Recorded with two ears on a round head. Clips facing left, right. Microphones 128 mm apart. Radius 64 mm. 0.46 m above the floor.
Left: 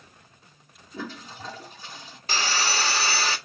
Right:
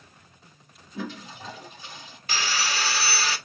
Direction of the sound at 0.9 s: 35° left (ahead or behind).